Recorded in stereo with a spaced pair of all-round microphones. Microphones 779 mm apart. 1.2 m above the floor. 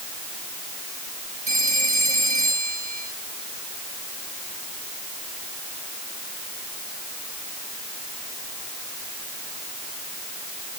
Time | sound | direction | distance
1.5 | a phone ringing | 45° right (ahead or behind) | ?